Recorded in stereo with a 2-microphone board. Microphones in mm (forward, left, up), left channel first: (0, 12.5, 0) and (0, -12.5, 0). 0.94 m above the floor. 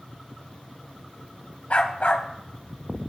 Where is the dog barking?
55° left (ahead or behind), 1.2 m.